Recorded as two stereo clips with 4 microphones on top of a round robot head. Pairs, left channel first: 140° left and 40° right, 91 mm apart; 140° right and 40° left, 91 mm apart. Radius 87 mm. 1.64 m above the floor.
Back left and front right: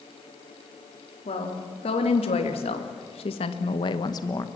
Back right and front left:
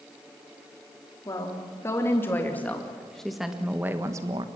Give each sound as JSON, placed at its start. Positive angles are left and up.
{"t": 1.2, "sound": "a woman speaking", "azimuth_deg": 160, "distance_m": 3.5}